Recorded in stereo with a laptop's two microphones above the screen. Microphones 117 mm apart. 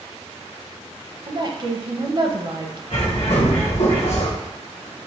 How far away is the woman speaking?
About 0.8 m.